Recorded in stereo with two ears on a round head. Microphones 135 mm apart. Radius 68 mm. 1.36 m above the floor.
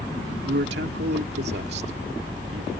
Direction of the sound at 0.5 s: 85° right.